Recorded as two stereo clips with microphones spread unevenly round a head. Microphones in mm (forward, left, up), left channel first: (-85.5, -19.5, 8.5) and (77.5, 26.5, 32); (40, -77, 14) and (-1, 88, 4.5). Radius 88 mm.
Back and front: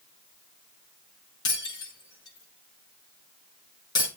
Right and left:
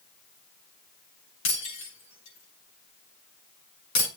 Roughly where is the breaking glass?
Right.